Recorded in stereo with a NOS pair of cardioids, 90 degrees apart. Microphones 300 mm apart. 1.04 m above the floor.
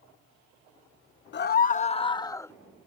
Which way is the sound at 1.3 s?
35° left.